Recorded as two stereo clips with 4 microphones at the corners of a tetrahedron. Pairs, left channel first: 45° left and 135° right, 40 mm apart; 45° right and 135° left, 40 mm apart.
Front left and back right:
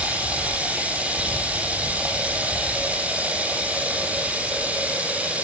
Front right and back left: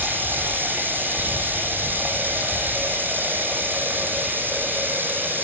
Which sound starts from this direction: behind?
Running water, at 0.0 s.